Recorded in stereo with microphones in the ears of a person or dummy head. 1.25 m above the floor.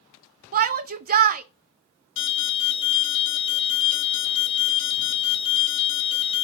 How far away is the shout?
About 0.9 m.